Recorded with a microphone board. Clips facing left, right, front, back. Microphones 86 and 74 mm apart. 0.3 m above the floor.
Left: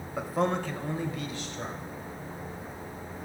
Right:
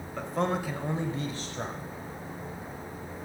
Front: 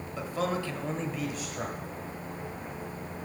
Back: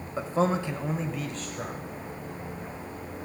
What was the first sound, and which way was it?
A man speaking, 160° left.